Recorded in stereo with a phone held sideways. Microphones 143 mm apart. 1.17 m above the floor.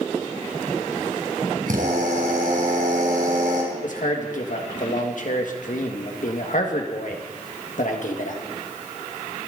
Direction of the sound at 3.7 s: 65° left (ahead or behind).